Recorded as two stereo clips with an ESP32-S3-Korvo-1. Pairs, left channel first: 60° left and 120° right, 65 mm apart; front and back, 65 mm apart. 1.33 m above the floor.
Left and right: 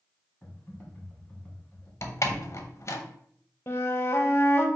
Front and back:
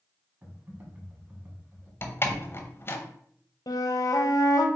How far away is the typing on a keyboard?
About 1.5 m.